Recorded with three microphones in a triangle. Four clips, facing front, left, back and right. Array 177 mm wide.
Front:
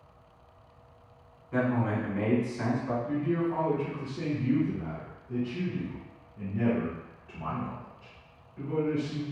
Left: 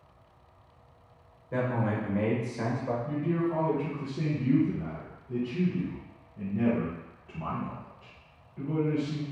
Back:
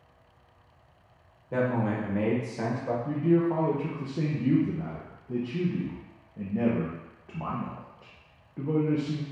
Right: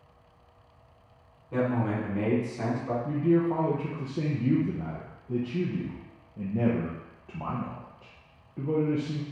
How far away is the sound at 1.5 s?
About 1.2 m.